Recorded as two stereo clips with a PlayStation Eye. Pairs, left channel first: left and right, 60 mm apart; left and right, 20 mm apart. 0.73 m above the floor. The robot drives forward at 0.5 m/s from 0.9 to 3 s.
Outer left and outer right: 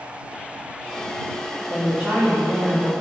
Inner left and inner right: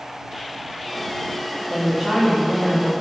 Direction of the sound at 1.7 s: 20° right (ahead or behind).